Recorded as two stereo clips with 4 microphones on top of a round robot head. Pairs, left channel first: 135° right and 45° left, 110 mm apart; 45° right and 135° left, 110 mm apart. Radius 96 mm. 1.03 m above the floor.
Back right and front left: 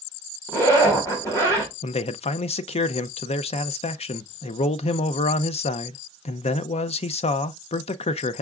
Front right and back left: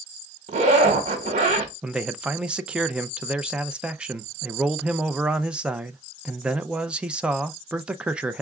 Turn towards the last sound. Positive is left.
turn(degrees=-145)